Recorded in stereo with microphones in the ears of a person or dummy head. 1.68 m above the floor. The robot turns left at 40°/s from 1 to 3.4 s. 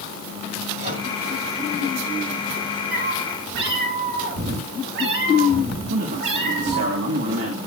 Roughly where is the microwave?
Right.